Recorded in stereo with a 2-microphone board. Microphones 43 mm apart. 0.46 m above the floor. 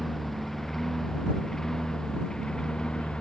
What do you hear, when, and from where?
0.0 s a lawn mower: 5° left (ahead or behind); by 3.2 s 20° left (ahead or behind)